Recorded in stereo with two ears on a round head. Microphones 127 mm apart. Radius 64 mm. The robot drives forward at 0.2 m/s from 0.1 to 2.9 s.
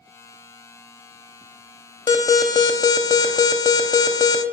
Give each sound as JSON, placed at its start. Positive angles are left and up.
{"t": 2.1, "sound": "an alarm", "side_deg": 25, "distance_m": 0.6}